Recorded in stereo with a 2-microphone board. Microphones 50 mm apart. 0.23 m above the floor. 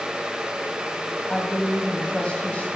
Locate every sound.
1.3 s a woman speaking: 25° left (ahead or behind), 1.6 m